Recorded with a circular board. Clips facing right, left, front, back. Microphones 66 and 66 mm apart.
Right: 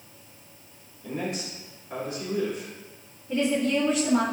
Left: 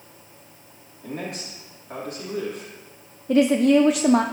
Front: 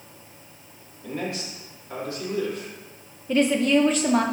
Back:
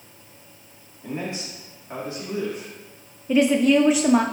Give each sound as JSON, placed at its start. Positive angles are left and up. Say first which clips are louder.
{"t": 1.0, "sound": "a man speaking", "louder": "right 1 dB, even", "azimuth_deg": 115, "distance_m": 3.5}
{"t": 3.3, "sound": "a woman speaking", "louder": "left 8 dB, back 3 dB", "azimuth_deg": 100, "distance_m": 0.5}